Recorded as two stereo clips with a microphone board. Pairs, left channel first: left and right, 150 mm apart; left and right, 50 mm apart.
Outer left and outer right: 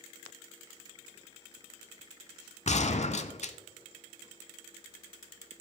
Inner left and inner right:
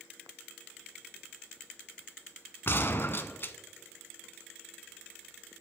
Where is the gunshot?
50° left (ahead or behind), 0.5 m.